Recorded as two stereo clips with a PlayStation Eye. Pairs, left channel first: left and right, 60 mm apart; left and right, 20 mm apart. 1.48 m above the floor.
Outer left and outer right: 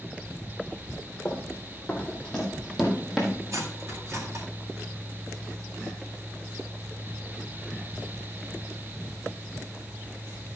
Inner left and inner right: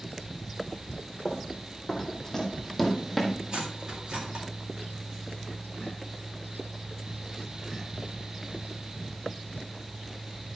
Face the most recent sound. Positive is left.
turn(degrees=-55)  # may be behind; listen again after turning